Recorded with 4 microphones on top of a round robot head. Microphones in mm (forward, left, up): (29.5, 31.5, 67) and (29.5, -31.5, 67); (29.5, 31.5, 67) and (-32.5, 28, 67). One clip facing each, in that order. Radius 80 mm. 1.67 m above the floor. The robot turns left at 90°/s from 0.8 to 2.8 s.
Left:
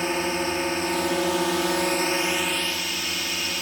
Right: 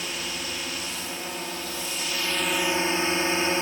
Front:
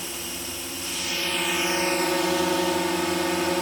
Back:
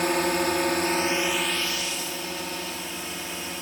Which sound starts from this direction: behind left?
A drone, at 0.0 s.